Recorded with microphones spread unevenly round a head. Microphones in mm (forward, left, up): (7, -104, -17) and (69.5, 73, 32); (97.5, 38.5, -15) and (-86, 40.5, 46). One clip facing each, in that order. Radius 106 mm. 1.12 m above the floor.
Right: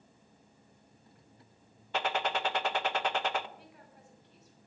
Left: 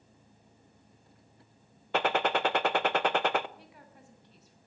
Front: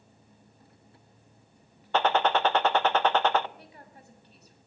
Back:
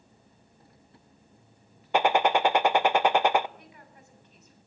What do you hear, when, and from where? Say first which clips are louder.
1.9 s a gunshot: left 5 dB, back 2 dB; 85° left, 0.8 m
3.6 s a woman speaking: left 1 dB, front 1 dB; 55° left, 7 m